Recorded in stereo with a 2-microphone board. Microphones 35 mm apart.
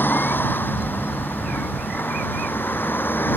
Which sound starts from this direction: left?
A vehicle, at 0.0 s.